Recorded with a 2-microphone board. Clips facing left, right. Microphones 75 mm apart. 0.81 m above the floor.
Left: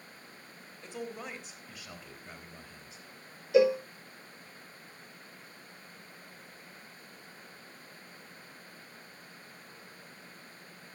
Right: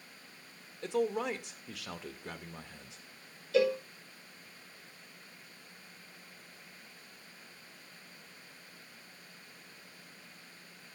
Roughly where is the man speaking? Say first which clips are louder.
Right 9 dB; right.